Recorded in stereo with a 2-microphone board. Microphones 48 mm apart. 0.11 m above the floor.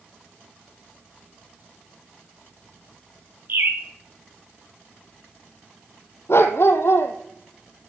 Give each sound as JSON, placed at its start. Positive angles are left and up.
{"t": 3.5, "sound": "a bird", "side_deg": -50, "distance_m": 1.3}
{"t": 6.3, "sound": "a dog barking", "side_deg": 70, "distance_m": 1.4}